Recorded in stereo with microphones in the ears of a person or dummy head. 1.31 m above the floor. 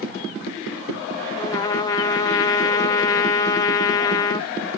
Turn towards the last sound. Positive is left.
turn(degrees=20)  # may be behind; listen again after turning